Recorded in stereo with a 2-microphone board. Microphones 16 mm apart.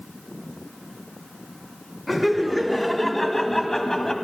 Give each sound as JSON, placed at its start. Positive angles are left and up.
{"t": 2.1, "sound": "laughter", "side_deg": 0, "distance_m": 2.0}